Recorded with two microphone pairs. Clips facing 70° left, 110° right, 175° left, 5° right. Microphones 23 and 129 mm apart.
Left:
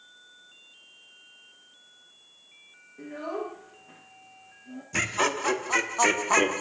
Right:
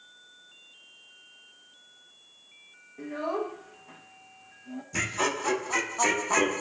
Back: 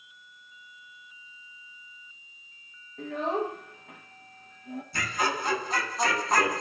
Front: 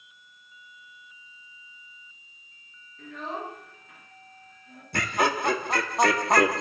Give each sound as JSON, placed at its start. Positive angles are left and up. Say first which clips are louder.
{"t": 3.0, "sound": "a child speaking", "louder": "right 3 dB, back 7 dB", "azimuth_deg": -170, "distance_m": 1.2}
{"t": 4.9, "sound": "laughter", "louder": "left 2 dB, front 5 dB", "azimuth_deg": 10, "distance_m": 1.1}